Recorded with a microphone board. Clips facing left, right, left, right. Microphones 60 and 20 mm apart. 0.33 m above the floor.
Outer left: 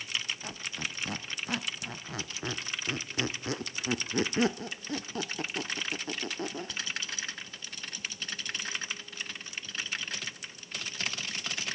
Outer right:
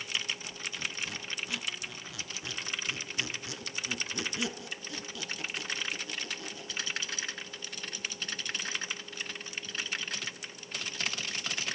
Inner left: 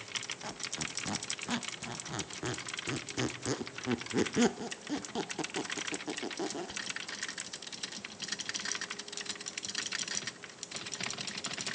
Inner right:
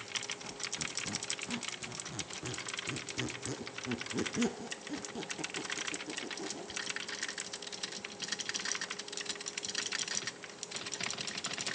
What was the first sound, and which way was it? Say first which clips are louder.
A squeak: outer left 1 dB, inner left 1 dB; 45° left (ahead or behind).